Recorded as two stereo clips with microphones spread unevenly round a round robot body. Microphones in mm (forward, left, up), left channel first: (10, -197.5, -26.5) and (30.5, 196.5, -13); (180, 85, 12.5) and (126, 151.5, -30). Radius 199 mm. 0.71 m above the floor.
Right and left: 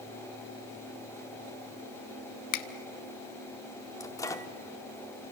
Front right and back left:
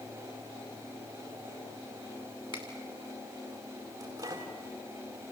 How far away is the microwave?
About 1.0 m.